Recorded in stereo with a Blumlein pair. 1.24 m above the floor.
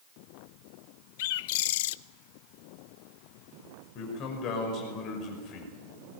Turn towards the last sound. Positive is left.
turn(degrees=35)